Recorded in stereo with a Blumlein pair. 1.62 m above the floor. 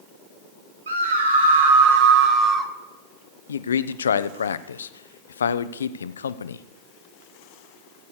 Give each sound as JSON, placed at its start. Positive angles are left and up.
{"t": 0.9, "sound": "a scream", "azimuth_deg": -70, "distance_m": 2.0}
{"t": 3.5, "sound": "a man speaking", "azimuth_deg": 70, "distance_m": 0.6}